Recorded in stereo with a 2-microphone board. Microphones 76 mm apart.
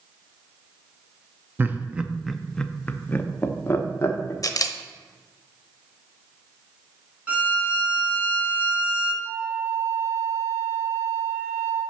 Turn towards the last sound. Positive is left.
turn(degrees=-35)  # may be behind; listen again after turning